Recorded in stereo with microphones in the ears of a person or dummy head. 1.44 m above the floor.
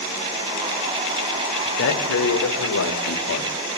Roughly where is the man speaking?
Left.